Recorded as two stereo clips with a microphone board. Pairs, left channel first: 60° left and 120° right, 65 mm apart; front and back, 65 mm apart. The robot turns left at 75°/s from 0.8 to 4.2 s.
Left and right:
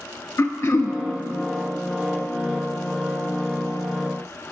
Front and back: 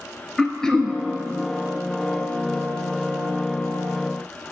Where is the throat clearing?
75° left, 0.5 m; by 1.0 s 60° left, 0.5 m.